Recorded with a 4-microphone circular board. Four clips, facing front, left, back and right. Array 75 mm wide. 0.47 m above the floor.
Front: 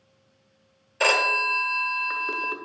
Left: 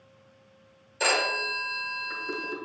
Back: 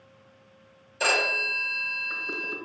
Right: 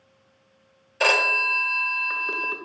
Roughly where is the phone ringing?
Ahead right.